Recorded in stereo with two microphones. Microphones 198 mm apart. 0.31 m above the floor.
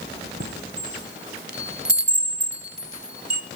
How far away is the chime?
About 1.0 m.